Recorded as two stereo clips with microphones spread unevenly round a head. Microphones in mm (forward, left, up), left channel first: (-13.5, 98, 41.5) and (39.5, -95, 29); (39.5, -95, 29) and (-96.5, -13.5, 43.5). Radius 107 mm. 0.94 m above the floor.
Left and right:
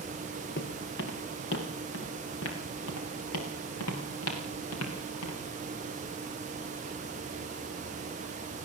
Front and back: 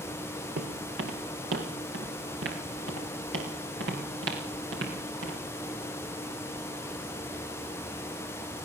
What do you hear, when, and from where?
0.6 s footsteps: 145° left, 3.5 m; by 5.4 s 120° left, 7 m